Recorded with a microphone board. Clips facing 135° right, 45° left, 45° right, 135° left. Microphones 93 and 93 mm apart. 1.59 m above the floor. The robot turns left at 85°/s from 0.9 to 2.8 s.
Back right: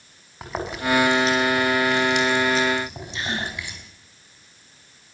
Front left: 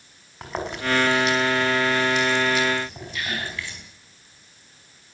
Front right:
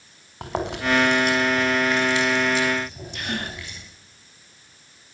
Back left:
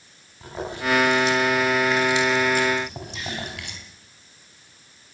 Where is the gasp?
70° right, 2.5 m.